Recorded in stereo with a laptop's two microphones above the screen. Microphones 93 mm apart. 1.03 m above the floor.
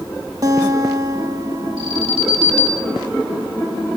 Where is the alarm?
85° right, 2.5 m.